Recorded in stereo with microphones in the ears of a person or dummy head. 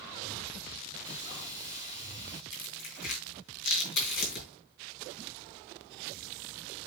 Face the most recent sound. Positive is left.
turn(degrees=60)  # may be behind; listen again after turning